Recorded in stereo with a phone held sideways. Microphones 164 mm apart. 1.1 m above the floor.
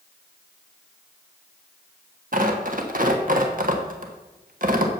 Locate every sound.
2.3 s tearing paper: 55° right (ahead or behind), 1.3 m